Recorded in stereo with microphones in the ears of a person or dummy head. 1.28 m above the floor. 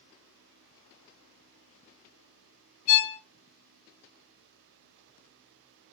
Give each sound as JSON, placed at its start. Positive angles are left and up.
{"t": 2.9, "sound": "a violin", "side_deg": 45, "distance_m": 1.9}